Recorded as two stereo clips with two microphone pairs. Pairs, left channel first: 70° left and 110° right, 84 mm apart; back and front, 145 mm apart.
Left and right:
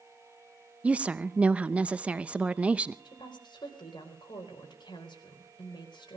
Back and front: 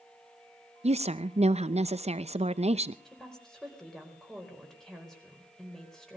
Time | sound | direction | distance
0.8 | a woman speaking | 40° right | 0.7 m
3.0 | a woman speaking | 95° left | 4 m